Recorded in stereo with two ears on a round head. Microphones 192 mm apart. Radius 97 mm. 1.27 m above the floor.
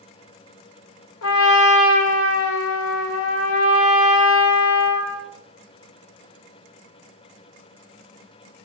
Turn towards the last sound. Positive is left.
turn(degrees=65)  # may be behind; listen again after turning